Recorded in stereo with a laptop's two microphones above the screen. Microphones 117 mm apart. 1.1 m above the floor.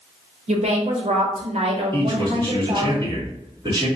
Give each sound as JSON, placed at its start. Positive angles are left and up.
{"t": 0.5, "sound": "a woman speaking", "side_deg": -65, "distance_m": 1.2}
{"t": 1.9, "sound": "a man speaking", "side_deg": -45, "distance_m": 1.8}